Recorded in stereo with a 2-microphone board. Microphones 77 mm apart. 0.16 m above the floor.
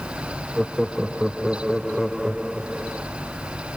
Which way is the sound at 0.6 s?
5° right (ahead or behind).